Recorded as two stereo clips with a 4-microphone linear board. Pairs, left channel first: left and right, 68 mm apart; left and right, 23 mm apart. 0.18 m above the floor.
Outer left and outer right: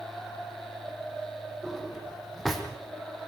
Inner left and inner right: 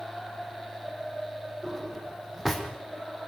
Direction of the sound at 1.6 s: Centre (ahead or behind).